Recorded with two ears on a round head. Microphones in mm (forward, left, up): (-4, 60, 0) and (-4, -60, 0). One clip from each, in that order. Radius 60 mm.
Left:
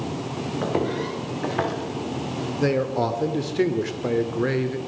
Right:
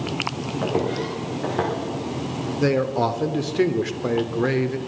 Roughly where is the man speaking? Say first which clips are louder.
Right 2 dB; centre.